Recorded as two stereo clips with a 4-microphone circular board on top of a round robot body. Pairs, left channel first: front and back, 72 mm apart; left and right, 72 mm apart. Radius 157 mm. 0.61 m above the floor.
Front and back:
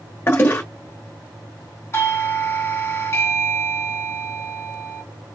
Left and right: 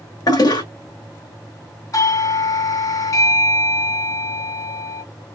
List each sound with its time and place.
0.3 s a toilet flushing: 60° left, 1.9 m
1.9 s a doorbell: 50° left, 2.5 m